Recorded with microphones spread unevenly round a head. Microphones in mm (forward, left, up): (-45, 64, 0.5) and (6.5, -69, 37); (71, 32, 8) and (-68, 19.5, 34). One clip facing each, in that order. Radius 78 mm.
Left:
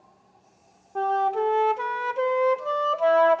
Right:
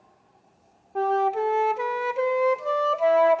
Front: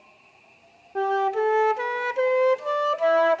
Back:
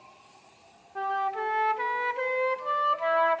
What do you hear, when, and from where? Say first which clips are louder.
0.9 s a flute: right 1 dB, front 7 dB; 20° left, 1.0 m